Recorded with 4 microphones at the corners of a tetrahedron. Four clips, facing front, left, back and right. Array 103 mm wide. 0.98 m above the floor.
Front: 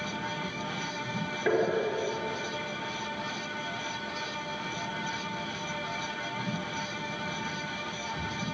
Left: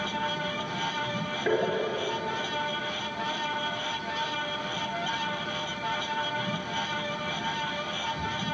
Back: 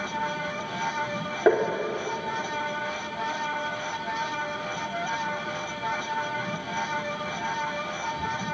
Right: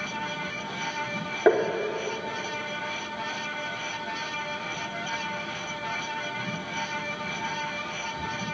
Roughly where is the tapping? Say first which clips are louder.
Right 6 dB, back 6 dB; behind right.